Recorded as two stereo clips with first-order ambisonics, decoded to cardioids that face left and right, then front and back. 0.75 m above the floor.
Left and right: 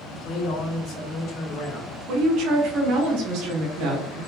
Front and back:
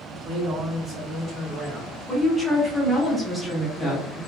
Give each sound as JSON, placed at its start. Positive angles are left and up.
{"t": 0.1, "sound": "a man speaking", "azimuth_deg": 145, "distance_m": 0.8}
{"t": 2.1, "sound": "a woman speaking", "azimuth_deg": -85, "distance_m": 1.1}